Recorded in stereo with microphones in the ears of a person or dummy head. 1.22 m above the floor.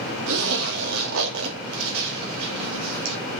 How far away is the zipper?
About 2.5 m.